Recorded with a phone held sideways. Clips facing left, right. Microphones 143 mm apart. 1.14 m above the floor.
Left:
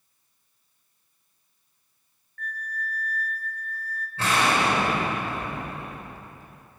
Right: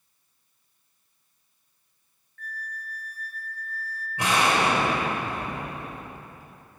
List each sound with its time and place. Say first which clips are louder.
2.4 s a flute: left 5 dB; 55° left (ahead or behind), 0.8 m
4.2 s an explosion: right 1 dB; 15° right (ahead or behind), 3 m